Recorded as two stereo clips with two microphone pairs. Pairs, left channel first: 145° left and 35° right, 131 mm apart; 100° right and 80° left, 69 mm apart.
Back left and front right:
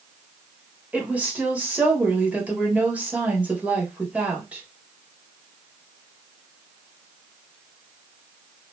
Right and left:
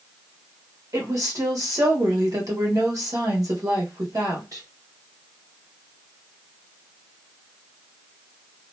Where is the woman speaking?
45° left, 1.3 m.